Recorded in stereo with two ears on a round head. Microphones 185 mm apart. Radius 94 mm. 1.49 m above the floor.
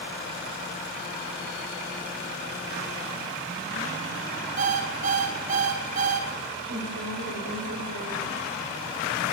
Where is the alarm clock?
35° right (ahead or behind), 4 m.